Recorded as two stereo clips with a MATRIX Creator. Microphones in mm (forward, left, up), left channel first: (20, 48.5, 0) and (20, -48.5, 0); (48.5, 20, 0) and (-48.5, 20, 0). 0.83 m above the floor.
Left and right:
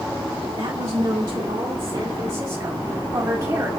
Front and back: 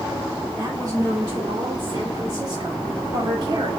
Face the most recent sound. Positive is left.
turn(degrees=-145)